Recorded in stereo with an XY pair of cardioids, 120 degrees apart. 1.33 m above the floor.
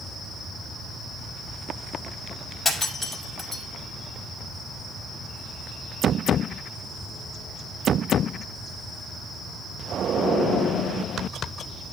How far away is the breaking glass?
About 5.5 m.